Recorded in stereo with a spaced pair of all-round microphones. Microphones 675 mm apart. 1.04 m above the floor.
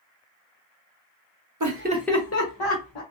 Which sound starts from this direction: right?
Laughter, at 1.6 s.